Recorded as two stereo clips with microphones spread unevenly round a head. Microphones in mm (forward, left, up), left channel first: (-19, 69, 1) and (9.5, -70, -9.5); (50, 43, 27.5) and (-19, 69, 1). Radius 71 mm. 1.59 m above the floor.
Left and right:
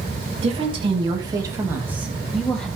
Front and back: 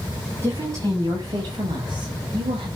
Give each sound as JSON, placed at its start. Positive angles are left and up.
{"t": 0.4, "sound": "a woman speaking", "azimuth_deg": -130, "distance_m": 3.0}